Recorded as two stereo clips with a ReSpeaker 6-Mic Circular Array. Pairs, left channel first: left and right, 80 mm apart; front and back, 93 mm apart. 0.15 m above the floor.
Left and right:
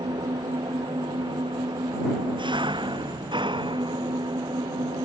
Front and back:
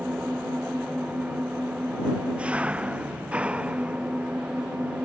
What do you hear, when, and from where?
0.0 s an engine running: 100° right